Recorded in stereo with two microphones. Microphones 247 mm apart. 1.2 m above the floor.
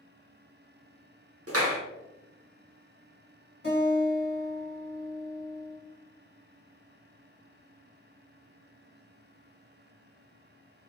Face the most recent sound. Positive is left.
turn(degrees=45)  # may be behind; listen again after turning